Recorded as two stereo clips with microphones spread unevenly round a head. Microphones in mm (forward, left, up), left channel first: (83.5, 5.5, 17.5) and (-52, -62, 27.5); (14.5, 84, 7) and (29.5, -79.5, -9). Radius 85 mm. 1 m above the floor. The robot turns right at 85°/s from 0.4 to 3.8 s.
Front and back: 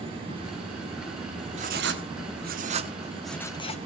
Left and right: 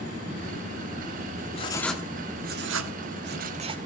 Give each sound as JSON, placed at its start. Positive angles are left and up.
{"t": 1.5, "sound": "writing", "azimuth_deg": 150, "distance_m": 1.2}